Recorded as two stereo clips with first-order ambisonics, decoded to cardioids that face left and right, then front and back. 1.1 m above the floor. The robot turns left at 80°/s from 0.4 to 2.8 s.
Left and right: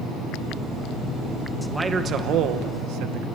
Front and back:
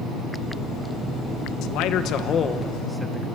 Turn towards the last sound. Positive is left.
turn(degrees=-90)